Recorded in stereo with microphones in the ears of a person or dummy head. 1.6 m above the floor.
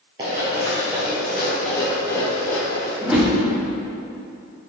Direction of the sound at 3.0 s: 5° right (ahead or behind).